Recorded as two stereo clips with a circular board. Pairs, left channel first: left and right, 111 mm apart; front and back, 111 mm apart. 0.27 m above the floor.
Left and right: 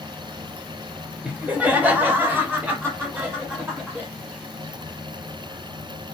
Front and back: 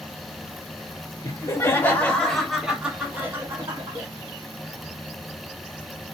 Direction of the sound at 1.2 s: 20° right.